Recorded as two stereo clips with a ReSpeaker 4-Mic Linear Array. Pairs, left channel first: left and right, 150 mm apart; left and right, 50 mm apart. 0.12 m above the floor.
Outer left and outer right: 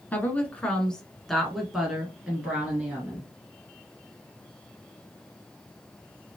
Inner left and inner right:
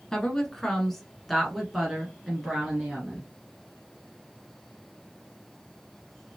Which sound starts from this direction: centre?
A woman speaking, at 0.1 s.